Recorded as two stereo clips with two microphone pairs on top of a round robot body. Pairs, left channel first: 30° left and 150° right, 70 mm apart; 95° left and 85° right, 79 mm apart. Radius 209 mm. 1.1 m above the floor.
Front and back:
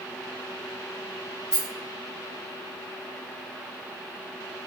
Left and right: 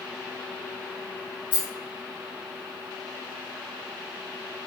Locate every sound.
1.5 s a rattle: 115° left, 0.9 m